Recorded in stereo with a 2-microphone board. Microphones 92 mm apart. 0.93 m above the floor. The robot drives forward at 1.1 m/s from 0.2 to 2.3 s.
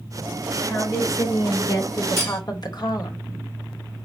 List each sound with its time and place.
0.6 s a woman speaking: 30° left (ahead or behind), 3.5 m; by 3.2 s 55° left (ahead or behind), 2.5 m
2.2 s cutlery clinking: 25° left (ahead or behind), 2.5 m; by 2.4 s 30° left (ahead or behind), 2.5 m